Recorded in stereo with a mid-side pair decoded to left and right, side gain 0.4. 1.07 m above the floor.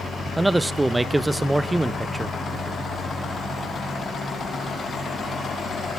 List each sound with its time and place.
0.4 s a man speaking: 10° right, 0.6 m